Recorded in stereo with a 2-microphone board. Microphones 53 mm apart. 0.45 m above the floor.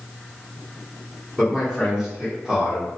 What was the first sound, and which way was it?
A man speaking, 5° right (ahead or behind).